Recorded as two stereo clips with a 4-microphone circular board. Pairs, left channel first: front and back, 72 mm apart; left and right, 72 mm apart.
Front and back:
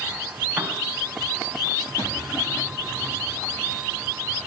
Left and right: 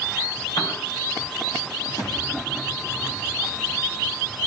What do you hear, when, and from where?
0.6 s a piano: 110° left, 3.5 m
2.0 s a thud: 60° left, 8 m